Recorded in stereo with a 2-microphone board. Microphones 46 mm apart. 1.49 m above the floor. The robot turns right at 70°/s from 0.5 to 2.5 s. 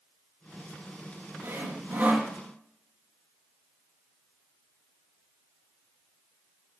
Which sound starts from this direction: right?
Sawing, at 1.4 s.